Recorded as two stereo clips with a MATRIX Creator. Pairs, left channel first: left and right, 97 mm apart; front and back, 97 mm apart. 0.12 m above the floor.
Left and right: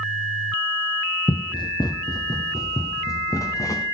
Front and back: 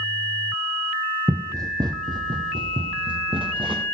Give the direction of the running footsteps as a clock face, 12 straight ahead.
8 o'clock.